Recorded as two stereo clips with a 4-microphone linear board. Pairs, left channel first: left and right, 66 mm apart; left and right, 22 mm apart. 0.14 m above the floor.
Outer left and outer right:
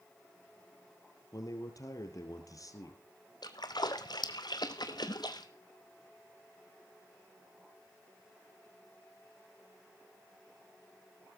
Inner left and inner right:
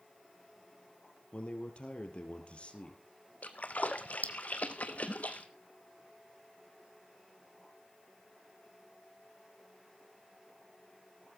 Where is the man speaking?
55° left (ahead or behind), 3 m.